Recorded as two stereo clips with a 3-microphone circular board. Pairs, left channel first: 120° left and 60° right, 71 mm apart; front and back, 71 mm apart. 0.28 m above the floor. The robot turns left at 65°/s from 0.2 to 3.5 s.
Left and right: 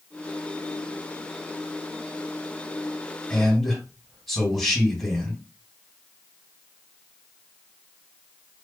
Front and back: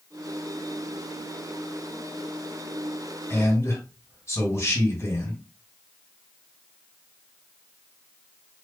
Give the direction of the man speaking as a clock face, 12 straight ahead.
11 o'clock.